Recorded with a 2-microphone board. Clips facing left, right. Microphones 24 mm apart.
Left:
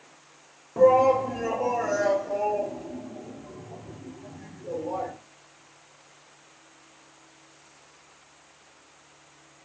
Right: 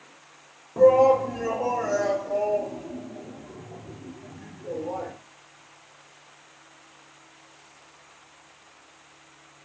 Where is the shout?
5° left (ahead or behind), 1.1 m; by 5.1 s 5° right (ahead or behind), 3 m.